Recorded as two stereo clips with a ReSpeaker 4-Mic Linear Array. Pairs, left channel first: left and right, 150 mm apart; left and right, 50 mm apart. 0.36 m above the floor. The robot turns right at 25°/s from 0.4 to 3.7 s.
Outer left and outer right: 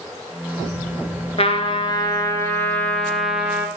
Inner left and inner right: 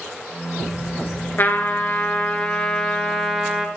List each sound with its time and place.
1.4 s a trumpet: 135° left, 0.7 m; by 3.7 s 170° right, 0.7 m